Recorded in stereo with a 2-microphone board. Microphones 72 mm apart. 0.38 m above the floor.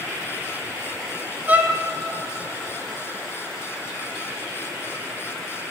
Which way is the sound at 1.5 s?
25° right (ahead or behind).